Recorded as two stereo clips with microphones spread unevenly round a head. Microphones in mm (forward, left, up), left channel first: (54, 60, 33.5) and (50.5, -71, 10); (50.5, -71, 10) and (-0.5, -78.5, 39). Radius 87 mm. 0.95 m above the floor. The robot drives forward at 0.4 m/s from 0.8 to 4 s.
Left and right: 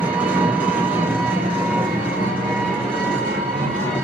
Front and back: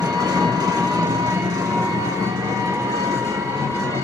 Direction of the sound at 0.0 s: 165° right.